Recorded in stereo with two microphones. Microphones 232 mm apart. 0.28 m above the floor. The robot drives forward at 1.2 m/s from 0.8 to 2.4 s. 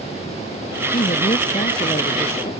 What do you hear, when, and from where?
0.9 s a woman speaking: 35° left (ahead or behind); by 2.5 s 25° left (ahead or behind)